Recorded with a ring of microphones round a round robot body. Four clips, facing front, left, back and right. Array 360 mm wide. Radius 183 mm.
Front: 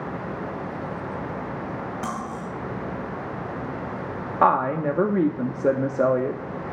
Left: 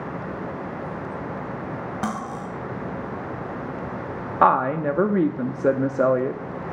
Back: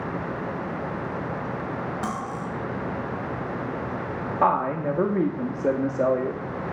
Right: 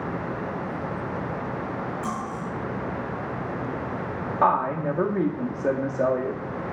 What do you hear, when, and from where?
2.0 s cutlery clinking: 95° left, 2.5 m
4.4 s a woman speaking: 70° left, 0.7 m